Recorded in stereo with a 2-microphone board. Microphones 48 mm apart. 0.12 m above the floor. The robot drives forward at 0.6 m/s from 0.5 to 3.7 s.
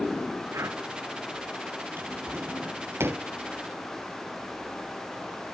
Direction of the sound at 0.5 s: 85° right.